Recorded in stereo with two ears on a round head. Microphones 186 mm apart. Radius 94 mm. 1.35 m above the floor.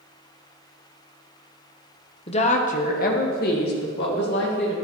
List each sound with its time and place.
2.3 s a woman speaking: 30° left (ahead or behind), 0.9 m; by 4.7 s 55° left (ahead or behind), 2.5 m